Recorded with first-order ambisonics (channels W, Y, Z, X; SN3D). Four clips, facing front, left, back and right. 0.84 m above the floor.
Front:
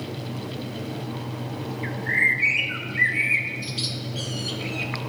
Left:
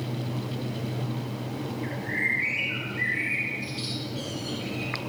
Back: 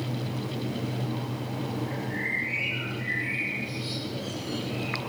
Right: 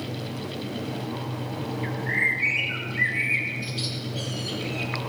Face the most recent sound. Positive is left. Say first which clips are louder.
# right 4 dB, front 14 dB
turn(degrees=-20)